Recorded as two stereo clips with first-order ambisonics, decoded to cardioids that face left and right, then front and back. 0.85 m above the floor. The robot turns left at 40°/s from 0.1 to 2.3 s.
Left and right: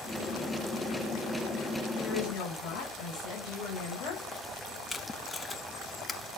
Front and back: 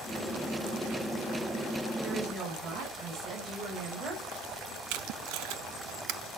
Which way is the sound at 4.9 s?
165° left.